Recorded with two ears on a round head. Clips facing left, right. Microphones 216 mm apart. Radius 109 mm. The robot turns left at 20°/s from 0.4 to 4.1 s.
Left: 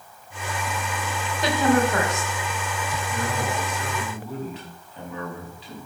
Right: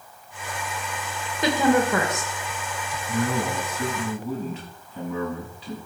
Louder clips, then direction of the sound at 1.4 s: Right 1 dB; 75° right (ahead or behind).